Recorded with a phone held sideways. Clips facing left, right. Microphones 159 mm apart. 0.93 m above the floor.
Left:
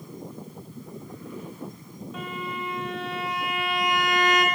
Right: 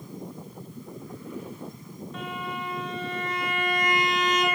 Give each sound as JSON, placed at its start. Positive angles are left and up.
{"t": 2.1, "sound": "a violin", "side_deg": 5, "distance_m": 2.0}